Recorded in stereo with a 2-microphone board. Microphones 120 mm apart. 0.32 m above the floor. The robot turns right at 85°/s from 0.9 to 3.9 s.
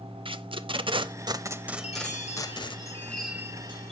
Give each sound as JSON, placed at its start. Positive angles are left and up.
{"t": 0.2, "sound": "tape being pulled", "side_deg": -50, "distance_m": 0.5}
{"t": 1.8, "sound": "a chime", "azimuth_deg": 60, "distance_m": 2.5}